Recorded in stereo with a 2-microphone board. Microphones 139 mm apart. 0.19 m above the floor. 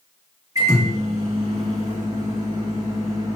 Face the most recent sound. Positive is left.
turn(degrees=-25)  # may be behind; listen again after turning